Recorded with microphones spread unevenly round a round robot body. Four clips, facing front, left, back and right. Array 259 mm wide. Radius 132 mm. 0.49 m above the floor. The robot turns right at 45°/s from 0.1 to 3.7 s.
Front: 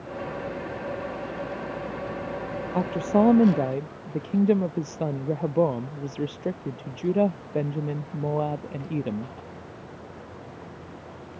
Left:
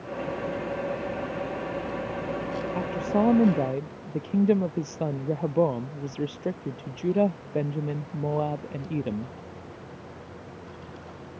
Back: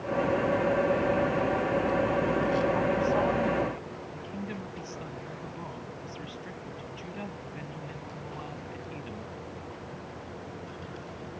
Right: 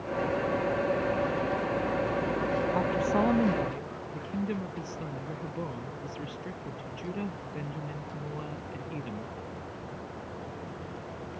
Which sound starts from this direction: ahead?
A woman speaking, at 2.7 s.